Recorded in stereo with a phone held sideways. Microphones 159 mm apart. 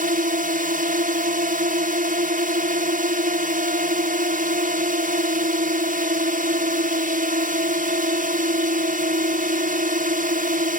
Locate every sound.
0.0 s a drone: 60° right (ahead or behind)